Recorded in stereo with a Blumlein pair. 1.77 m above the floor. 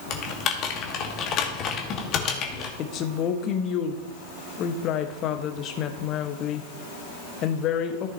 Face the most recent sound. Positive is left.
turn(degrees=35)